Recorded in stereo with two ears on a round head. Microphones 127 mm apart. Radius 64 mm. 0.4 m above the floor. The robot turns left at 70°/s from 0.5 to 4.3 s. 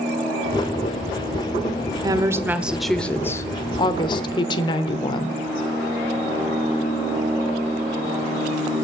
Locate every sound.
2.0 s a woman speaking: 125° right, 0.9 m; by 5.4 s 80° left, 0.9 m